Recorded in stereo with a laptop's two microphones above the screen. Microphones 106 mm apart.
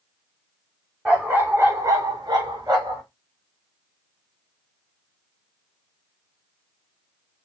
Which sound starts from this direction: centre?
A dog barking, at 1.1 s.